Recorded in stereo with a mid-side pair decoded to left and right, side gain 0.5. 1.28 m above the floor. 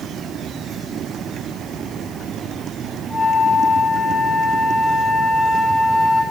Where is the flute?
15° left, 3.5 m.